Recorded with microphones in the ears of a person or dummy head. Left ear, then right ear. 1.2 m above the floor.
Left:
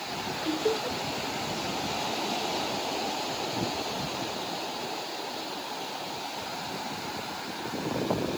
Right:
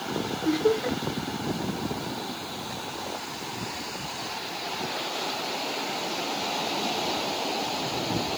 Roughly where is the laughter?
Right.